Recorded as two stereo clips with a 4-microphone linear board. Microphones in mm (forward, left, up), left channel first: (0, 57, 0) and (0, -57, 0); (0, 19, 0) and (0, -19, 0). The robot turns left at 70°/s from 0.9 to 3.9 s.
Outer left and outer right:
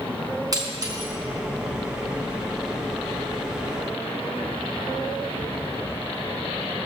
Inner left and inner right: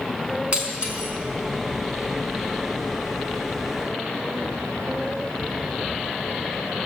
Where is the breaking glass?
35° right (ahead or behind), 4 m; by 1.1 s 50° right (ahead or behind), 4 m.